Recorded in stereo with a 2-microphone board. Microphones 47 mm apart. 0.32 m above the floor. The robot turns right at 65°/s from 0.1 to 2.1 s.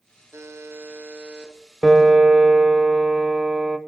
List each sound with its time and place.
0.3 s a buzzer: 90° right, 1.2 m; by 1.5 s 10° right, 1.2 m
1.8 s a piano: 15° right (ahead or behind), 0.5 m; by 3.8 s 25° right (ahead or behind), 0.5 m